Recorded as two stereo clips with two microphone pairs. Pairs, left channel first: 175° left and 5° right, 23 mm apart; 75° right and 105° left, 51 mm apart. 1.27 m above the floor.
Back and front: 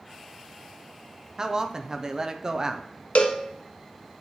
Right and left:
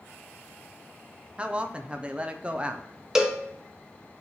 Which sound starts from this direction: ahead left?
A man speaking, at 1.4 s.